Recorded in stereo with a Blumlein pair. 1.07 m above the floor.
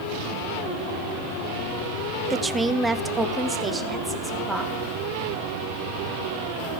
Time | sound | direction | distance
2.3 | a woman speaking | 10° right | 0.5 m